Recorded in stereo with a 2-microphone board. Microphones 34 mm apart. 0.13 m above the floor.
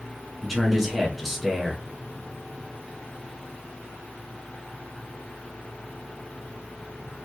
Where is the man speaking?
Centre (ahead or behind), 1.1 m.